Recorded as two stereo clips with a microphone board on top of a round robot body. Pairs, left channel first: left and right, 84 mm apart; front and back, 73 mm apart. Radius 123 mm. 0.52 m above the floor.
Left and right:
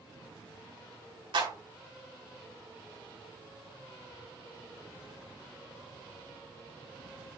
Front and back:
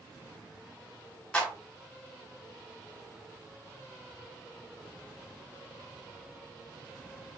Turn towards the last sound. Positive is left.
turn(degrees=-75)